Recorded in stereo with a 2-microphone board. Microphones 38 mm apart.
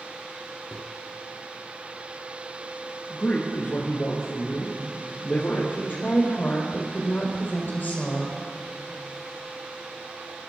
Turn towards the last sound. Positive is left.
turn(degrees=55)  # may be behind; listen again after turning